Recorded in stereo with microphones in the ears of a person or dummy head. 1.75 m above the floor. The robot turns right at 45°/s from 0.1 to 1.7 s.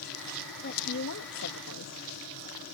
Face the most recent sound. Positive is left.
turn(degrees=100)